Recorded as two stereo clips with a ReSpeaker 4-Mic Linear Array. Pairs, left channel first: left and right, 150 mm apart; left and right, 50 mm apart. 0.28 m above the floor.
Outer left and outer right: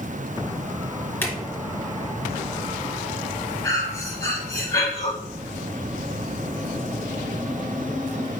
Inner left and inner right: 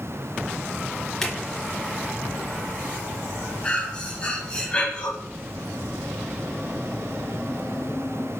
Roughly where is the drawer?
Centre.